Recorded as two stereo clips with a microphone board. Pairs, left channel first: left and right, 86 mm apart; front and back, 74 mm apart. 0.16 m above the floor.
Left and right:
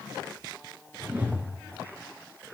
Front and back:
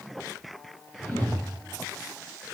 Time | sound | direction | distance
1.0 | a whoosh | 45° right | 1.2 m